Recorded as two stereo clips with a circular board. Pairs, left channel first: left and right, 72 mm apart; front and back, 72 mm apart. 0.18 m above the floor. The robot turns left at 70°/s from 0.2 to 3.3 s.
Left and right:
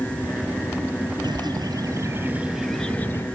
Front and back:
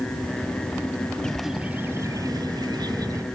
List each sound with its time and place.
1.2 s a bird: 80° right, 1.6 m; by 3.2 s 140° left, 1.6 m